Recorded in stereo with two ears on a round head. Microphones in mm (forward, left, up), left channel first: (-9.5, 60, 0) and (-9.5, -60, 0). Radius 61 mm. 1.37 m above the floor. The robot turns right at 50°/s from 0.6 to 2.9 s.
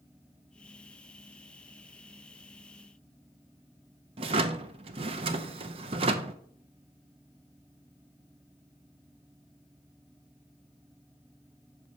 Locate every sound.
4.2 s a drawer: 45° right (ahead or behind), 0.5 m